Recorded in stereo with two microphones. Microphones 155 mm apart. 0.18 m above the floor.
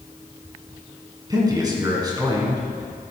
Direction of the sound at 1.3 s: 25° right (ahead or behind).